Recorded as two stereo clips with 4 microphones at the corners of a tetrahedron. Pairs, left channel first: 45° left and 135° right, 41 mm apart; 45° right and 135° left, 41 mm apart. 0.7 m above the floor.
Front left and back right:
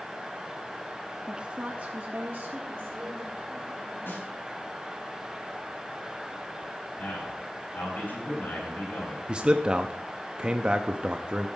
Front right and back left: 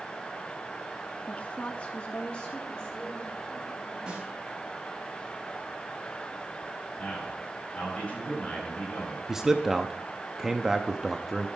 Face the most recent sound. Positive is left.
turn(degrees=-160)